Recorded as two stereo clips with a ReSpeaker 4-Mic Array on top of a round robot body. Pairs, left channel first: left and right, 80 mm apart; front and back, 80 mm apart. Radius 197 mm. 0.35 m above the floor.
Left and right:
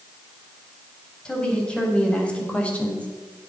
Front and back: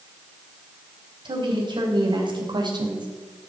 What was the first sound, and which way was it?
A woman speaking, 170° left.